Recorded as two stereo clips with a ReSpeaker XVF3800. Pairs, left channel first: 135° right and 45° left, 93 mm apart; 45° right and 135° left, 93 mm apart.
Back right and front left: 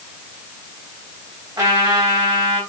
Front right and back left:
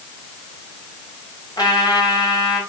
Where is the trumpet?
Straight ahead, 4.5 m.